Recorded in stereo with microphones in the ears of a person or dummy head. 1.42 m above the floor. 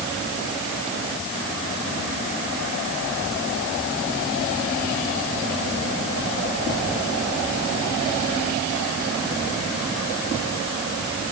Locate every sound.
Only background noise.